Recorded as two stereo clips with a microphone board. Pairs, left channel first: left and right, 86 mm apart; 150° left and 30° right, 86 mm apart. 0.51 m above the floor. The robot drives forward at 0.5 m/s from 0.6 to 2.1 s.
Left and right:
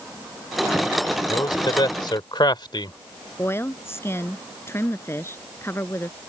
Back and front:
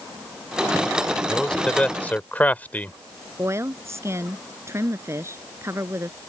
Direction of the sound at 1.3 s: 65° left.